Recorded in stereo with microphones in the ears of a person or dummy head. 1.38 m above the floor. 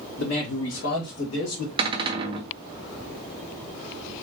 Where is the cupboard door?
25° right (ahead or behind), 0.6 m.